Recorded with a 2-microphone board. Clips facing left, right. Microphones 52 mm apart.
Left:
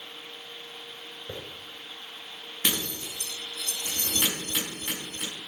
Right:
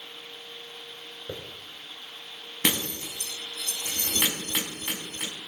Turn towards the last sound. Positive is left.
turn(degrees=-50)  # may be behind; listen again after turning